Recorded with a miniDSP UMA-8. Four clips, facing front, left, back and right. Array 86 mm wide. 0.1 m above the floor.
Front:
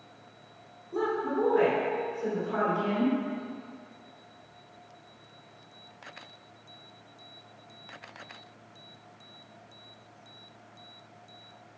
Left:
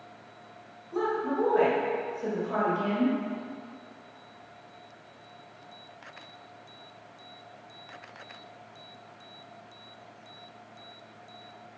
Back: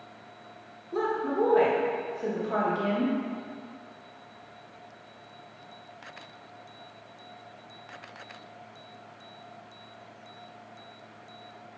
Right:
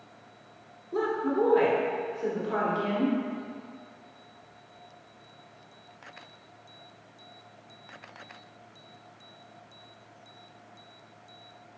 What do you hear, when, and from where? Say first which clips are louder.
0.9 s a woman speaking: right 1 dB, back 1 dB; 140° right, 1.2 m